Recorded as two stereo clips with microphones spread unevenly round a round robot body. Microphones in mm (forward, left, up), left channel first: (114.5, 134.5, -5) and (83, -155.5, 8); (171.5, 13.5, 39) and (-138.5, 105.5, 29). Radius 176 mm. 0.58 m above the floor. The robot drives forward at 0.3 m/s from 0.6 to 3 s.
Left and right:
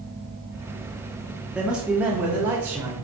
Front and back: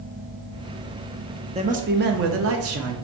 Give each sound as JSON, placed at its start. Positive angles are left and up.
{"t": 1.6, "sound": "a man speaking", "azimuth_deg": 175, "distance_m": 0.6}